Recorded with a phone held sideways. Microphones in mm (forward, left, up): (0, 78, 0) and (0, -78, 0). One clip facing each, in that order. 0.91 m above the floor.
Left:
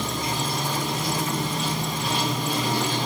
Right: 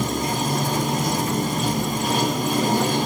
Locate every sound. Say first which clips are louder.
0.0 s running water: right 5 dB; 50° right (ahead or behind), 0.7 m